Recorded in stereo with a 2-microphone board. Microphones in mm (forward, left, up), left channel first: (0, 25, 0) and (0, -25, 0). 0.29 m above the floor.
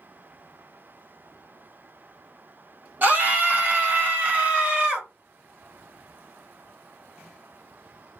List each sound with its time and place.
3.0 s a scream: 40° right (ahead or behind), 1.5 m; by 5.1 s 35° right (ahead or behind), 1.7 m